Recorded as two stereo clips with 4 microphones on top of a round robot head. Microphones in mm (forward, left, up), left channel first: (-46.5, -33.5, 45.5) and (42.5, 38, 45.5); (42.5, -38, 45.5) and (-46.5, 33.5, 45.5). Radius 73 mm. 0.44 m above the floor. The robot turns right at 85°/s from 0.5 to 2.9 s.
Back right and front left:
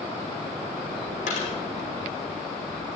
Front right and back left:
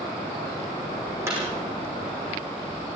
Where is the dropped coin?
150° right, 5.5 m; by 1.5 s 130° right, 5.5 m.